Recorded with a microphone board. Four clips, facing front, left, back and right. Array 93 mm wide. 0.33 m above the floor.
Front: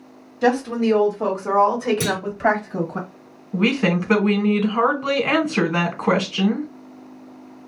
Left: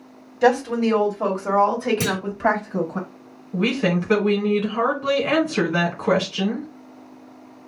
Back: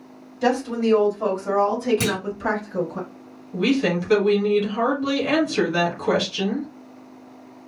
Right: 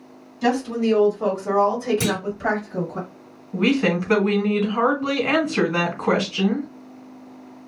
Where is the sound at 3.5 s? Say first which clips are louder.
Right 2 dB, front 1 dB; straight ahead, 1.4 m.